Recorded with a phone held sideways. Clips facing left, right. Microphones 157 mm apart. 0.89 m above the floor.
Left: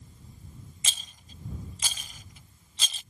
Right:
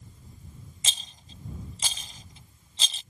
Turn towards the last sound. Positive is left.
turn(degrees=-30)  # may be behind; listen again after turning